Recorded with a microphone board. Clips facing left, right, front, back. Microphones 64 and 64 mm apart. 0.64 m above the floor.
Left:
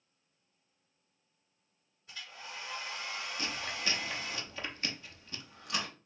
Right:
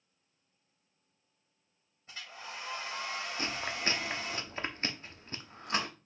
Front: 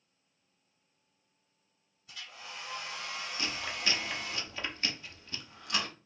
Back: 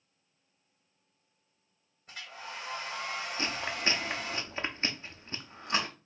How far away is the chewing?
About 0.7 m.